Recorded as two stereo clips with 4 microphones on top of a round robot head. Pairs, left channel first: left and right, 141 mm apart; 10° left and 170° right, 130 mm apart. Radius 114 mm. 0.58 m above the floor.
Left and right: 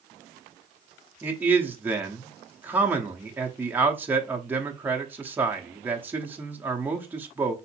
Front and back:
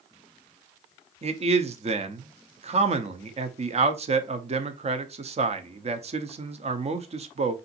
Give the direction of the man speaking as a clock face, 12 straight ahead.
5 o'clock.